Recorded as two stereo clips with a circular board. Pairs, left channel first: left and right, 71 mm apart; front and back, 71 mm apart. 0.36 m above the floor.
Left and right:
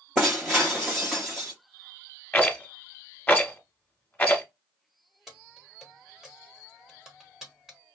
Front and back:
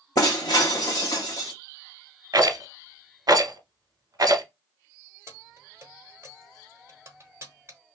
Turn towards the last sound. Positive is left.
turn(degrees=-170)